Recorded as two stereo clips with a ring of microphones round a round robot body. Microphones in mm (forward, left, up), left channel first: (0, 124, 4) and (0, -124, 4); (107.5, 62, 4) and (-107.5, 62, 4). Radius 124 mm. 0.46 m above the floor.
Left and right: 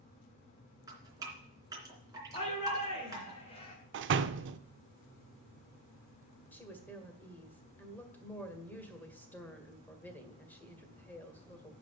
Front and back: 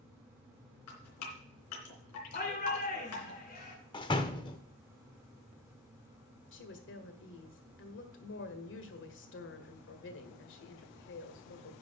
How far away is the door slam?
About 0.6 m.